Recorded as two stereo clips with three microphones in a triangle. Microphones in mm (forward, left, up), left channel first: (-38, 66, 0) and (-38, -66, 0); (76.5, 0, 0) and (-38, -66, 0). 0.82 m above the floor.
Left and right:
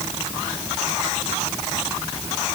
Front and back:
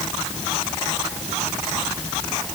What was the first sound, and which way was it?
Only background noise.